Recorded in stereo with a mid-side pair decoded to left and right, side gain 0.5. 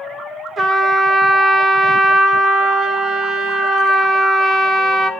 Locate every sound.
0.6 s a trumpet: 40° right, 1.6 m